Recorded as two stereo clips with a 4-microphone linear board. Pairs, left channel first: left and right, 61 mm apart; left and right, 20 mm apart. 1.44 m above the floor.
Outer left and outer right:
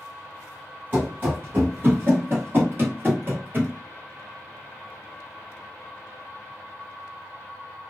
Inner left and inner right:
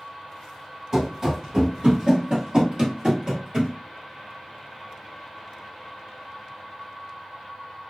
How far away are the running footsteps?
About 1.9 m.